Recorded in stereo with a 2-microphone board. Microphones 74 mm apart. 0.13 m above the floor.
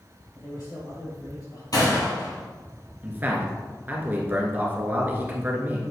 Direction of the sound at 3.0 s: 25° right (ahead or behind).